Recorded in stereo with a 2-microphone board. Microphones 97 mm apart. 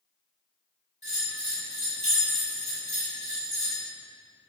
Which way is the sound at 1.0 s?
40° right (ahead or behind).